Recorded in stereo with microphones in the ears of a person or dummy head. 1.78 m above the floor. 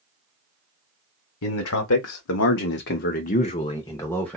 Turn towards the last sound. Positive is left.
turn(degrees=5)  # may be behind; listen again after turning